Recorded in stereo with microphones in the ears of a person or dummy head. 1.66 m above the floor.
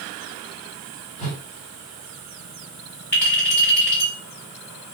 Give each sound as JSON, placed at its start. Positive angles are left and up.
{"t": 1.2, "sound": "a whoosh", "side_deg": -25, "distance_m": 1.5}
{"t": 3.1, "sound": "a clink", "side_deg": 15, "distance_m": 1.7}